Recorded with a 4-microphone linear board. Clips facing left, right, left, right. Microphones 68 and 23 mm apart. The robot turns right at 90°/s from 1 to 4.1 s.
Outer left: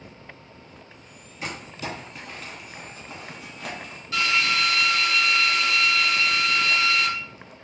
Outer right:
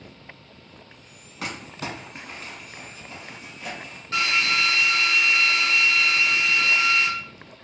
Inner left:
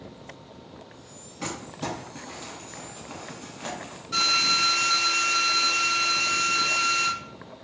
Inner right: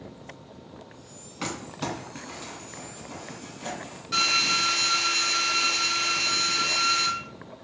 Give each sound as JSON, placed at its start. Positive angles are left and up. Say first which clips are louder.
{"t": 1.4, "sound": "crumpling", "louder": "even, inner right 1 dB", "side_deg": -85, "distance_m": 0.8}
{"t": 4.1, "sound": "a drill", "louder": "even, inner left 1 dB", "side_deg": -35, "distance_m": 1.2}